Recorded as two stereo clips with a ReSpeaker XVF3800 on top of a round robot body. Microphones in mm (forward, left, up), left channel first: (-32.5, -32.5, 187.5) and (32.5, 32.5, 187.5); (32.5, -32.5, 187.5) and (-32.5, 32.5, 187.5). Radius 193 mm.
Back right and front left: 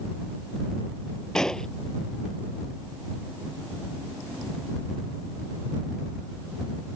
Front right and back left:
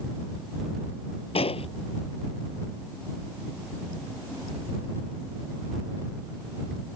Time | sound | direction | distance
1.4 | an explosion | 50° right | ?